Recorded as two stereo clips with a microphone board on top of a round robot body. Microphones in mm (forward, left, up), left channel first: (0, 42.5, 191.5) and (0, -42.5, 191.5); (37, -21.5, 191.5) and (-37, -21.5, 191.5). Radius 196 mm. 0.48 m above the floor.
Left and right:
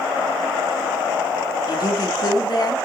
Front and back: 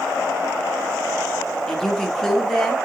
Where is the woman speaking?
85° left, 1.6 m.